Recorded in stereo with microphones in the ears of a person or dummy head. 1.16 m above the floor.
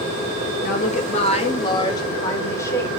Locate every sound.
0.6 s a woman speaking: 55° left (ahead or behind), 1.5 m; by 2.9 s 20° left (ahead or behind), 4 m